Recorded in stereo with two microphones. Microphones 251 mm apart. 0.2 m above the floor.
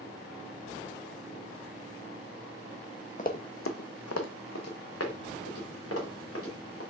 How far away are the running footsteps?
About 0.5 m.